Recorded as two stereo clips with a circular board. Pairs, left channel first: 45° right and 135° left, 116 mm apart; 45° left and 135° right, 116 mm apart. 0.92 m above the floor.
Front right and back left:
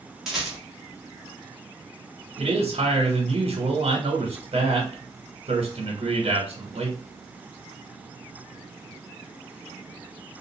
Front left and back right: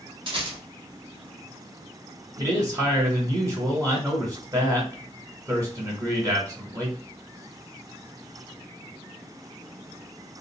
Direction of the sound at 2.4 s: 165° left.